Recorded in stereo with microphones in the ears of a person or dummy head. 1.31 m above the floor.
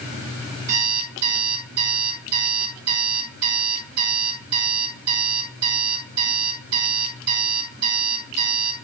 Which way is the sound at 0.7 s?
60° right (ahead or behind).